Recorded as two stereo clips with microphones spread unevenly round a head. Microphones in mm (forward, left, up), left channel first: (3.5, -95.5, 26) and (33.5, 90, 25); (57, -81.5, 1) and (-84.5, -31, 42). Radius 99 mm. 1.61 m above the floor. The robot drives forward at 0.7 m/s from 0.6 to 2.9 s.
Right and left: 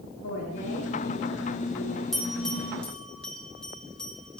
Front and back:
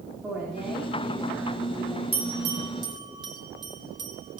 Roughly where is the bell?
Behind.